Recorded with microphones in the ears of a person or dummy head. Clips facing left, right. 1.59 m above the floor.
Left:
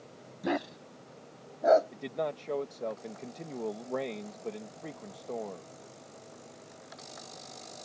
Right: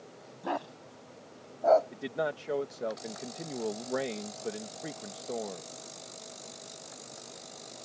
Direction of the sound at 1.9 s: 5° right (ahead or behind).